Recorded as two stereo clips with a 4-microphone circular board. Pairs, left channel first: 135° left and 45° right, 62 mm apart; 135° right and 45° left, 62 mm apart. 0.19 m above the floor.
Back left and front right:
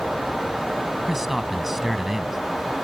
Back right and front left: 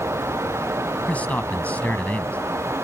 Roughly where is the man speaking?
Behind right.